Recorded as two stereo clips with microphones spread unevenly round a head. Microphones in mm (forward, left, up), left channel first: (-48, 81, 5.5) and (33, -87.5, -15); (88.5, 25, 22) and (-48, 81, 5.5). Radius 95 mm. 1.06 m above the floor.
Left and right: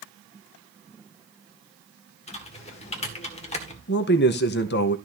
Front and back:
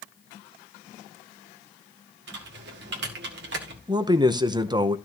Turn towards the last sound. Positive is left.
turn(degrees=115)